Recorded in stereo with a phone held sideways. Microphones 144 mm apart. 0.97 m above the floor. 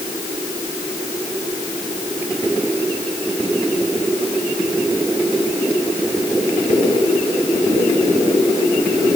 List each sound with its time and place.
Only background noise.